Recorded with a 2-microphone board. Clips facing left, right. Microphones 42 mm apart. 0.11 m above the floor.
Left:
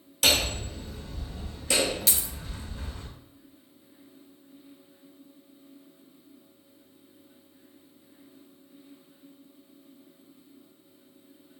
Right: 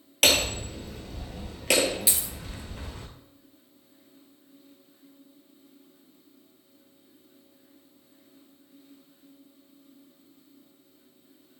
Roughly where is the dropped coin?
Centre.